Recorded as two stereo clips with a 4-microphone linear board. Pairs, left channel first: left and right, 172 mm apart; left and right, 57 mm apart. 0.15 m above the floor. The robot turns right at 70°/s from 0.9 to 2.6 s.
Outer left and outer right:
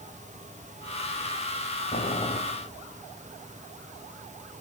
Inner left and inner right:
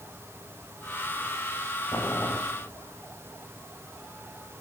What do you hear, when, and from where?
1.9 s boiling: 120° left, 3 m; by 2.4 s 155° left, 3 m